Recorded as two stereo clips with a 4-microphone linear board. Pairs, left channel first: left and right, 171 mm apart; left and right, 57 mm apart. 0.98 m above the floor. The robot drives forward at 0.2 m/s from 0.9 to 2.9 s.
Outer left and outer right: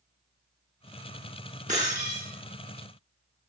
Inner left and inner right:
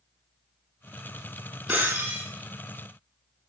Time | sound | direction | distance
1.7 | breaking glass | 45° right (ahead or behind) | 6.5 m